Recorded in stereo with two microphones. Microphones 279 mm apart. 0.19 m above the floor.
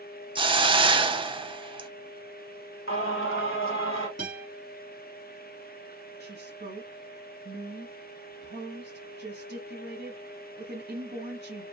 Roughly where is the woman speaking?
Right.